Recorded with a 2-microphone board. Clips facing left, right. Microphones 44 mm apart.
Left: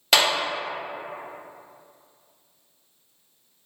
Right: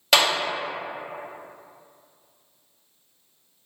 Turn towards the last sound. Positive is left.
turn(degrees=0)  # may be behind; listen again after turning